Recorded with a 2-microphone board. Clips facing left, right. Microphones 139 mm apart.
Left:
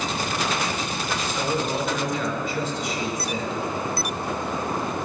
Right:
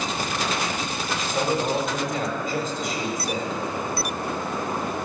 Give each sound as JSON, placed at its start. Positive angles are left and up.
{"t": 1.1, "sound": "a man speaking", "side_deg": -45, "distance_m": 2.5}